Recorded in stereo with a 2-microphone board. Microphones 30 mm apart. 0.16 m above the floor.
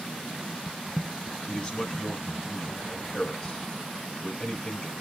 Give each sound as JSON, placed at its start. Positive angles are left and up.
{"t": 1.5, "sound": "a man speaking", "side_deg": 25, "distance_m": 1.3}